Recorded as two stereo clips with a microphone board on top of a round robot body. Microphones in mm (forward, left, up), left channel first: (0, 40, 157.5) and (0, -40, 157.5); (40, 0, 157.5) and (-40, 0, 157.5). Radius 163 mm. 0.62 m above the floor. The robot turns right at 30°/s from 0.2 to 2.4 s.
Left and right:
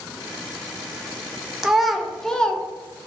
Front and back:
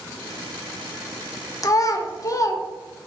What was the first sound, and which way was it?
A child speaking, 10° right.